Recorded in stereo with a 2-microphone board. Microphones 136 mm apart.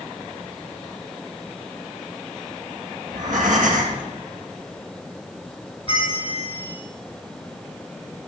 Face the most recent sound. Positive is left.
turn(degrees=40)  # may be behind; listen again after turning